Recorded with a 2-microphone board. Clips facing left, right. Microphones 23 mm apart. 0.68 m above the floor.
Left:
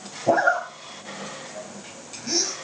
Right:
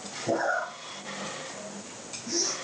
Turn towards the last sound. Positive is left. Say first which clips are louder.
# left 8 dB
turn(degrees=75)  # may be behind; listen again after turning